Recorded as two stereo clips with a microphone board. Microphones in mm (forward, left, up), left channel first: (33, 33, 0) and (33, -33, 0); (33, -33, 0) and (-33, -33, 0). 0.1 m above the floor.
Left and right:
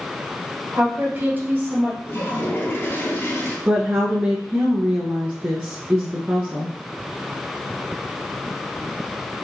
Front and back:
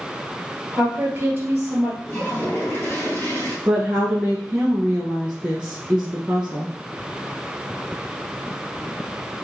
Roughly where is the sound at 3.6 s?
Behind right.